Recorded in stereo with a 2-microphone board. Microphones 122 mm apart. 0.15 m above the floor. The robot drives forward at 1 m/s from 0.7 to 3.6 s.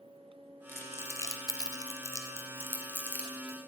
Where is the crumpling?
20° left (ahead or behind), 1.2 m; by 3.6 s 10° left (ahead or behind), 2 m.